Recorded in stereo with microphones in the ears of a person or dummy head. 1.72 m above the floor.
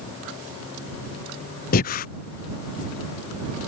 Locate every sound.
1.7 s breathing: 45° left (ahead or behind)